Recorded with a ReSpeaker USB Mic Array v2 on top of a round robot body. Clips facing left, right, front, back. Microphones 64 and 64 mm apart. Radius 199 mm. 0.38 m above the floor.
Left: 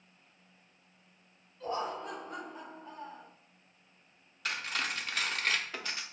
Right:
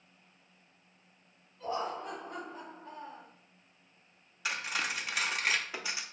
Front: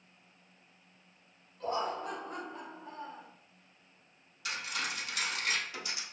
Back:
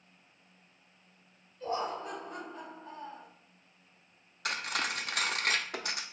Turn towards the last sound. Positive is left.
turn(degrees=-170)